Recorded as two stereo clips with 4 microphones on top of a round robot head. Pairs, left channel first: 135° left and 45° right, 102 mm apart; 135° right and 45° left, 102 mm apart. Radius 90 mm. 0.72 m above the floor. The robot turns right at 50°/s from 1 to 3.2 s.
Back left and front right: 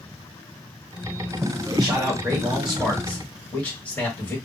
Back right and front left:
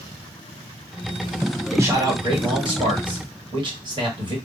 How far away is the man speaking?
About 1.6 m.